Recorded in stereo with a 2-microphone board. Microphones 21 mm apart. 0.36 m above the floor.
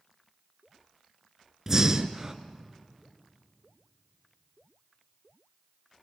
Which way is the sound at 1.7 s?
20° right (ahead or behind).